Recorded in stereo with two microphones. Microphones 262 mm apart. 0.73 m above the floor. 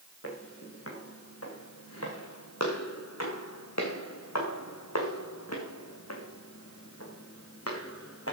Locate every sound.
0.2 s footsteps: 60° left (ahead or behind), 5 m; by 8.3 s 55° left (ahead or behind), 4 m